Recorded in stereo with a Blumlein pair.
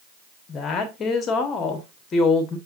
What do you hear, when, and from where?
0.5 s a woman speaking: 25° left, 1.7 m